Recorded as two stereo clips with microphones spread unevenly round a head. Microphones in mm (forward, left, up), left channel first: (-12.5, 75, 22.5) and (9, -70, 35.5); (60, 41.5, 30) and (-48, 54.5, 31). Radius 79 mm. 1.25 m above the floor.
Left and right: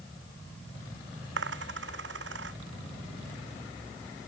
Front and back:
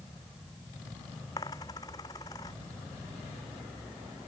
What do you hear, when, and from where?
1.4 s a dropped coin: 75° right